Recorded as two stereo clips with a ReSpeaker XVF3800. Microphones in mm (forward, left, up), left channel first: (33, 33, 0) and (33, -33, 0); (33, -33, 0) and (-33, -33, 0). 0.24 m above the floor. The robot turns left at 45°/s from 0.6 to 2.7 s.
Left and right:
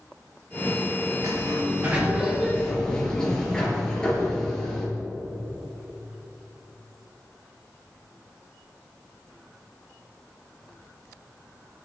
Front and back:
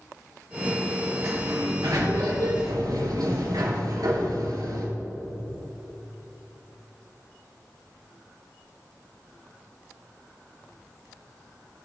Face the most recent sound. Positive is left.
turn(degrees=170)